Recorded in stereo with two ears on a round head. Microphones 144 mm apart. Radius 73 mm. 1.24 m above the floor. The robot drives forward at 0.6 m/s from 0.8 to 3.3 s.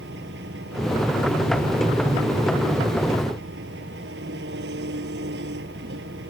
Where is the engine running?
80° right; by 6.3 s 85° right.